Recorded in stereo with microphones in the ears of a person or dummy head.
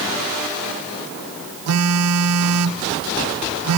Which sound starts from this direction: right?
A phone buzzing, at 1.7 s.